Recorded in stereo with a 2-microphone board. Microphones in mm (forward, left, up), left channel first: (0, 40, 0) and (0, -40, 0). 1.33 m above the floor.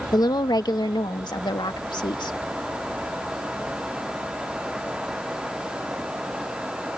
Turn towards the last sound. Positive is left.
turn(degrees=70)  # may be behind; listen again after turning